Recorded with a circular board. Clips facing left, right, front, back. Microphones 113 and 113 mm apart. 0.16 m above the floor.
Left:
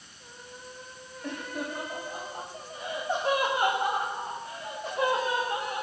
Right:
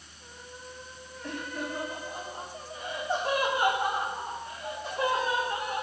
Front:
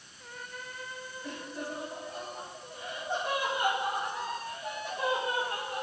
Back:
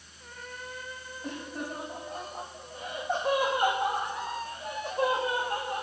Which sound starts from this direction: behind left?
Laughter, at 1.2 s.